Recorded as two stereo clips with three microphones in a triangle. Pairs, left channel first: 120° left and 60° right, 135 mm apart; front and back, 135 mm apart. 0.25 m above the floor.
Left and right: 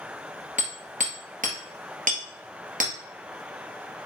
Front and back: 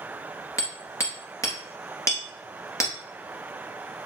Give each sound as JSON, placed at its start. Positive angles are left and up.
{"t": 0.6, "sound": "hammering", "azimuth_deg": -65, "distance_m": 1.6}